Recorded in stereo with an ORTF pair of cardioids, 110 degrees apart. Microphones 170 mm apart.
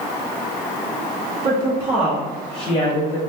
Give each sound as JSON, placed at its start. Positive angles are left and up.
{"t": 1.4, "sound": "a woman speaking", "azimuth_deg": -30, "distance_m": 1.0}